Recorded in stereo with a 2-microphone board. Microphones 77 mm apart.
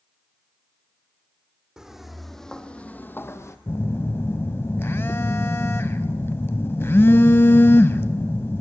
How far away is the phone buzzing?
About 0.5 m.